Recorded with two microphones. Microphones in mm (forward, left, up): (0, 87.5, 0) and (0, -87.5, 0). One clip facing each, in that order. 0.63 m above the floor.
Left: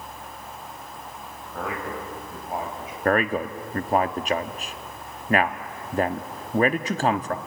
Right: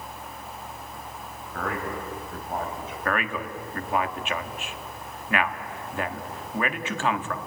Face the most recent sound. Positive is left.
turn(degrees=40)  # may be behind; listen again after turning